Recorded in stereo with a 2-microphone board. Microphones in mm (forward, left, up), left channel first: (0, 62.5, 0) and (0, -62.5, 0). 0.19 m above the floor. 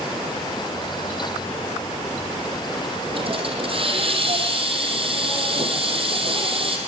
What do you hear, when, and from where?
3.1 s a hiss: 45° right (ahead or behind), 5 m